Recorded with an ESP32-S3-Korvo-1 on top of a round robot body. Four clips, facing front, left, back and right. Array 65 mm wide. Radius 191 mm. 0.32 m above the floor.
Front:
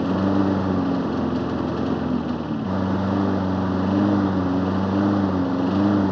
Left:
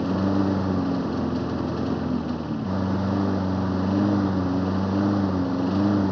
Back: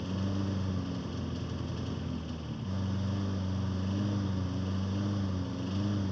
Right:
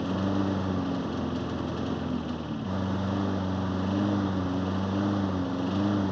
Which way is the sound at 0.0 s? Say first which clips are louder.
Left 5 dB, front 15 dB; 15° left.